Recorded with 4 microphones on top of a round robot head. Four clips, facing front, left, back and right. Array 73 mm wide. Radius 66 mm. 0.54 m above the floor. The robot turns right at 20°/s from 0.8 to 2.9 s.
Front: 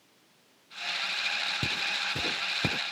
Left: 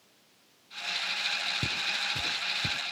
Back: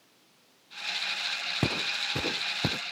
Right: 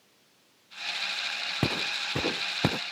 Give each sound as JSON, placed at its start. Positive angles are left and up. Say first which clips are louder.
{"t": 1.6, "sound": "footsteps", "louder": "right 2 dB, back 1 dB", "azimuth_deg": -130}